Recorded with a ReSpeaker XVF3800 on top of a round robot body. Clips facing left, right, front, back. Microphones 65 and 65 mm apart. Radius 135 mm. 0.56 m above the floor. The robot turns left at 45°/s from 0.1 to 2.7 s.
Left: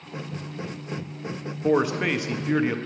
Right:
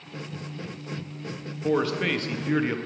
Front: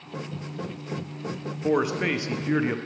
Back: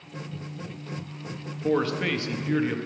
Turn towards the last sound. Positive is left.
turn(degrees=5)